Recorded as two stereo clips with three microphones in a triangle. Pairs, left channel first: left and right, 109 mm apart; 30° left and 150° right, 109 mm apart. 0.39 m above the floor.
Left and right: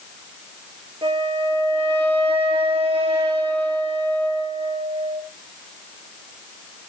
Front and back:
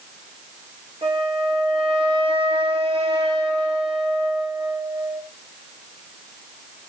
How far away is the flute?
About 6.5 m.